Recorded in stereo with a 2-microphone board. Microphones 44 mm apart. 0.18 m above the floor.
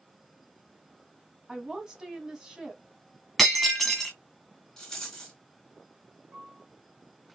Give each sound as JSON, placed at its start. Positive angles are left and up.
{"t": 1.5, "sound": "a woman speaking", "side_deg": -10, "distance_m": 1.1}
{"t": 3.4, "sound": "breaking glass", "side_deg": 0, "distance_m": 1.8}
{"t": 4.8, "sound": "a rattle", "side_deg": 15, "distance_m": 1.8}
{"t": 6.3, "sound": "a piano", "side_deg": -50, "distance_m": 3.0}